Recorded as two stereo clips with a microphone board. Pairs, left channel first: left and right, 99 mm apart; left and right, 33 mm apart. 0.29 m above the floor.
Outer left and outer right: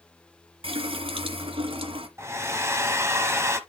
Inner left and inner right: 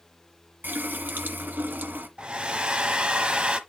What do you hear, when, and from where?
0.6 s a running tap: 65° right (ahead or behind), 1.7 m
2.2 s a hair dryer: 25° right (ahead or behind), 1.2 m